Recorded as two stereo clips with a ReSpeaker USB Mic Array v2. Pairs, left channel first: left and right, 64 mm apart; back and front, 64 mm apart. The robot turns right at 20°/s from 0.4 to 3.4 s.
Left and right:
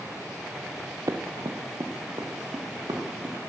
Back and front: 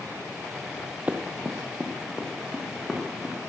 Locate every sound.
1.1 s running footsteps: 65° right, 0.8 m; by 3.4 s 90° right, 3 m